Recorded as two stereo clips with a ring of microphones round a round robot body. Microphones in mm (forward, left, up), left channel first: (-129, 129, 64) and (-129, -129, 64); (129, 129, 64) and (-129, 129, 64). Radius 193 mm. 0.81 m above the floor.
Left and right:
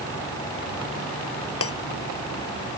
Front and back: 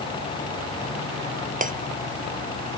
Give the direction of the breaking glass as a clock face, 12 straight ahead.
8 o'clock.